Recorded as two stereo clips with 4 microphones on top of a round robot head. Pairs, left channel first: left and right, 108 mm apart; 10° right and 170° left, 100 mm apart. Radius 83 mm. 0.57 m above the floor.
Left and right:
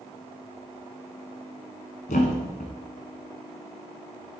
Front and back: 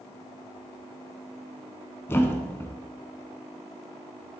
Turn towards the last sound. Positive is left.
turn(degrees=55)